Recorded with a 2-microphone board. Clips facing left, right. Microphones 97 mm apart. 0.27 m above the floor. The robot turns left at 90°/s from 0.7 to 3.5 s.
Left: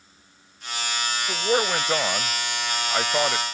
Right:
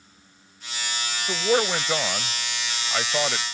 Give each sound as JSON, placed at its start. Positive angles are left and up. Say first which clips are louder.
{"t": 1.3, "sound": "a man speaking", "louder": "right 1 dB", "side_deg": -10}